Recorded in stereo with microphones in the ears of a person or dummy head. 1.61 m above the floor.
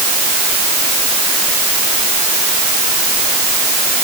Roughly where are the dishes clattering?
No dishes clattering in this recording.